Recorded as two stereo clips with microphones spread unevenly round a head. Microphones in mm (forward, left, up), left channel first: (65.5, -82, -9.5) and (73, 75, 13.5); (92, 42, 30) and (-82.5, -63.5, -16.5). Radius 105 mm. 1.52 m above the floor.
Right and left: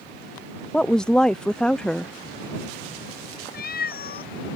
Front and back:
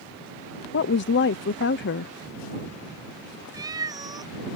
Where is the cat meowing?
70° right.